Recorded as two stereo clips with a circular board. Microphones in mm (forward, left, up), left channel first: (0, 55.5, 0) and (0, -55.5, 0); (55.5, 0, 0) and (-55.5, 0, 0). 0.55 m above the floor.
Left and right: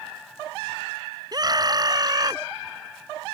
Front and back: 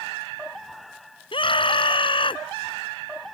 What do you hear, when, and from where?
1.3 s a scream: 40° right